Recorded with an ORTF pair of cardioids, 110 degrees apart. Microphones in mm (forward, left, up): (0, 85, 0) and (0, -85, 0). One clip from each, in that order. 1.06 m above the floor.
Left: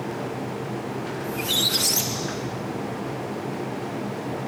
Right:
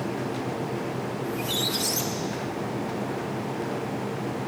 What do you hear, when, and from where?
1.2 s a squeak: 25° left, 0.5 m